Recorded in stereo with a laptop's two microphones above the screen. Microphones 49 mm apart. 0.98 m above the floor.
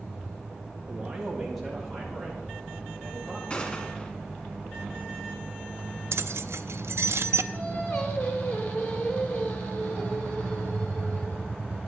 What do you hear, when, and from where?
0.9 s a man speaking: 15° right (ahead or behind), 2 m; by 3.4 s 25° left (ahead or behind), 4 m
3.5 s a gunshot: 30° left (ahead or behind), 2.5 m
6.1 s keys jangling: 70° right (ahead or behind), 0.5 m
7.5 s singing: 55° left (ahead or behind), 2.5 m